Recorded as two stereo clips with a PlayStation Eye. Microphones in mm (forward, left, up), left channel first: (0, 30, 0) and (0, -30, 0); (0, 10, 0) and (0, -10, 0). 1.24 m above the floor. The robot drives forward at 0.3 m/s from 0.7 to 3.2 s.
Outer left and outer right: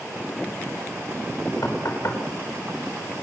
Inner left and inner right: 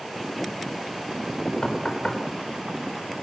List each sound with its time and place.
1.6 s knocking: 60° left (ahead or behind), 4.5 m